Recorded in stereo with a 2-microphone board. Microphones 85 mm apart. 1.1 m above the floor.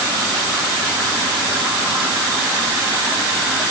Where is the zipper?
I don't hear a zipper.